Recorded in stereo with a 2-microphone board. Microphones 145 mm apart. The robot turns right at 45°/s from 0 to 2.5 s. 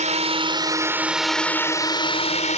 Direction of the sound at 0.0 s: 55° right.